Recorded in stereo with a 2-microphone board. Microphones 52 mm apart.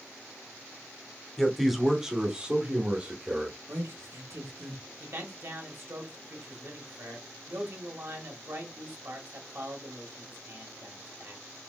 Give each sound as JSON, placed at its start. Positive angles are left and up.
{"t": 1.4, "sound": "a man speaking", "side_deg": 0, "distance_m": 1.0}
{"t": 3.7, "sound": "a man speaking", "side_deg": -65, "distance_m": 1.9}
{"t": 5.0, "sound": "a man speaking", "side_deg": -55, "distance_m": 1.4}